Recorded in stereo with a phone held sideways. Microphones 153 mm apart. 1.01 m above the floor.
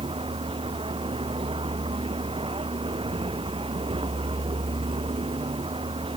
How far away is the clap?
I don't hear a clap.